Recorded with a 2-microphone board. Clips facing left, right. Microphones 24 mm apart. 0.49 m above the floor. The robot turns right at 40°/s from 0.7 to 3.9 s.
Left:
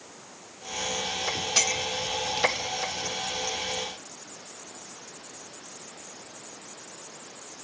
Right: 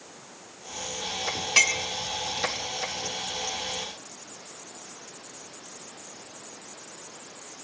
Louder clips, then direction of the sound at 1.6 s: Right 5 dB; 55° right (ahead or behind).